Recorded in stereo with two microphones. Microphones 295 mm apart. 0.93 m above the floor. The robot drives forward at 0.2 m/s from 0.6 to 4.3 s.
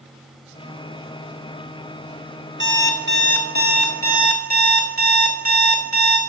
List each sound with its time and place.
2.6 s an alarm clock: 40° right (ahead or behind), 1.0 m; by 6.2 s 30° right (ahead or behind), 1.3 m